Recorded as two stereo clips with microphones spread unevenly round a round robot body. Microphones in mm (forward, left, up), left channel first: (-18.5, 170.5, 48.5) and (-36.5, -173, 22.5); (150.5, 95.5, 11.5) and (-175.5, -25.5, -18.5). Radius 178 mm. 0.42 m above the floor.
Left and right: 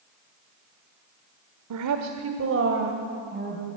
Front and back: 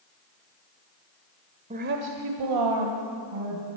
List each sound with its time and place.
1.7 s a woman speaking: 95° right, 1.1 m; by 3.7 s 160° right, 3 m